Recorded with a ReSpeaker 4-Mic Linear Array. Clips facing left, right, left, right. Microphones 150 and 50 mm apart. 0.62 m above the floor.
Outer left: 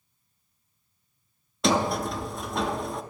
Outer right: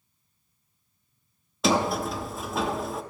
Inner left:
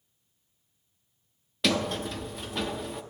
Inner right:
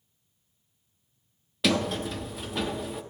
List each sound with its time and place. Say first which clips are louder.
1.6 s a sliding door: even, inner right 1 dB; centre (ahead or behind), 0.6 m